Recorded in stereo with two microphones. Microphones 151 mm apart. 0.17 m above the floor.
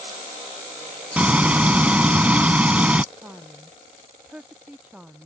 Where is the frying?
10° right (ahead or behind).